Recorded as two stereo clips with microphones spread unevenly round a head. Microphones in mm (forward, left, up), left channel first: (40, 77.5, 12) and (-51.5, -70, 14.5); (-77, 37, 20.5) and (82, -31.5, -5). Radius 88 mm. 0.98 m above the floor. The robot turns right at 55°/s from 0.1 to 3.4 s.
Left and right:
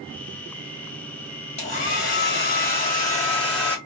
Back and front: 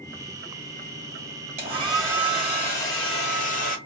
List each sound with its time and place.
1.6 s a hair dryer: 15° left, 1.3 m; by 3.8 s 115° left, 1.3 m